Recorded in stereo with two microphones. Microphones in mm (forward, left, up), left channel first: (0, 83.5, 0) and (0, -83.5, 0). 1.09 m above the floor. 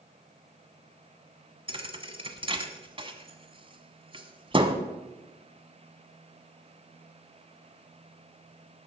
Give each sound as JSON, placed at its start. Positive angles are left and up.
{"t": 1.7, "sound": "a thud", "side_deg": -30, "distance_m": 1.1}